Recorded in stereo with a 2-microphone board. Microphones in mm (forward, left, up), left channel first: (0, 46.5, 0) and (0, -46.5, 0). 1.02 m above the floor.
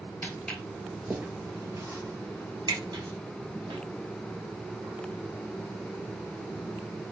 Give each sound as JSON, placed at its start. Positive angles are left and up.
{"t": 0.2, "sound": "footsteps", "side_deg": 15, "distance_m": 1.3}